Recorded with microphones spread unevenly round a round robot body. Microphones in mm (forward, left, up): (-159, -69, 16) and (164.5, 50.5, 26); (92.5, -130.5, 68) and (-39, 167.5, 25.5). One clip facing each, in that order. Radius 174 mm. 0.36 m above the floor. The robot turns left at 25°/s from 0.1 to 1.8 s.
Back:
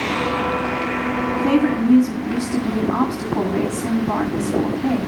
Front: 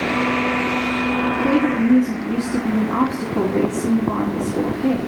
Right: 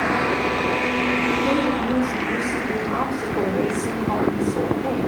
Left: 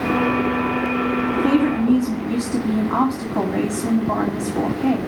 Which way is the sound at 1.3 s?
130° left.